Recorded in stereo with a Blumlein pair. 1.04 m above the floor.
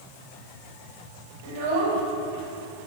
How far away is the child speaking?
About 4.5 m.